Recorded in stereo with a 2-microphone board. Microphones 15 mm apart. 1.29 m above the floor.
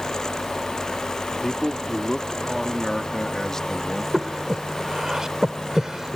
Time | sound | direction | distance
1.4 | a man speaking | 15° left (ahead or behind) | ?
4.1 | breathing | 45° right (ahead or behind) | ?